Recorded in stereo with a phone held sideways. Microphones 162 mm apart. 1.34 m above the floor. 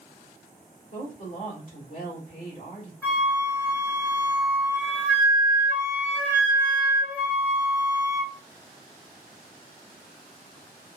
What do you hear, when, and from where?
0.9 s a woman speaking: 60° left (ahead or behind), 2 m
3.0 s a flute: 10° left (ahead or behind), 1.1 m